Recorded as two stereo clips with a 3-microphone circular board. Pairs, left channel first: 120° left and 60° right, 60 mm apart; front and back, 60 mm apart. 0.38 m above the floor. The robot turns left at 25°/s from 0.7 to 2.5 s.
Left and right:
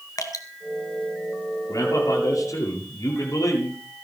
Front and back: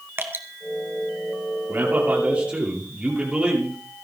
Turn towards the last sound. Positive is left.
turn(degrees=110)